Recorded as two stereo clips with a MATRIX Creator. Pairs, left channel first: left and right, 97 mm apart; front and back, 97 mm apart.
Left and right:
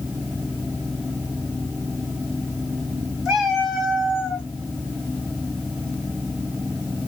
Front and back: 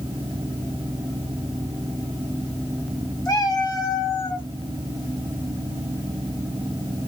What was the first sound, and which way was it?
A cat meowing, 10° right.